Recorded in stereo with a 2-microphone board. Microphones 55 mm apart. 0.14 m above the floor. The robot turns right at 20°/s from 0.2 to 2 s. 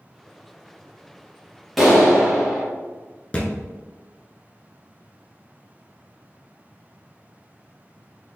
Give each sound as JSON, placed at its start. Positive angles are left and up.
{"t": 1.8, "sound": "a clap", "side_deg": -5, "distance_m": 1.4}
{"t": 3.3, "sound": "a thud", "side_deg": 25, "distance_m": 0.9}